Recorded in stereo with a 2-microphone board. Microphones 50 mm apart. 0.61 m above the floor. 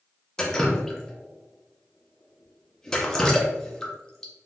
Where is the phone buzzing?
I don't hear a phone buzzing.